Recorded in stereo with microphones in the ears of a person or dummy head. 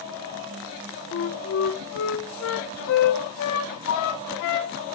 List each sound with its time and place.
1.1 s a flute: 65° left (ahead or behind), 1.2 m